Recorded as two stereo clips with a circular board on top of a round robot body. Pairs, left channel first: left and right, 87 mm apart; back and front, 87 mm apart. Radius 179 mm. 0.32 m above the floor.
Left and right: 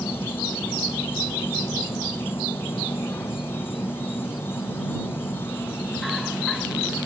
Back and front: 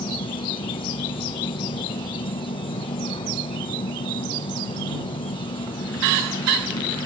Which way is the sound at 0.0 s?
155° left.